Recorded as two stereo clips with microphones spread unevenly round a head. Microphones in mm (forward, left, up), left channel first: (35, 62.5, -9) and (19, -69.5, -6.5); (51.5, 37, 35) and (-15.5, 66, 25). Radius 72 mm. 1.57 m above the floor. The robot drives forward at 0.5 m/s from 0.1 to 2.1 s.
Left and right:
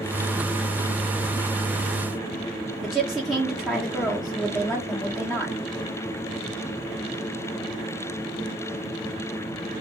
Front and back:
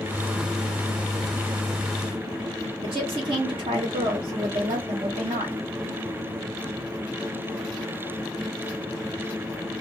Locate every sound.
2.8 s a woman speaking: 175° left, 0.8 m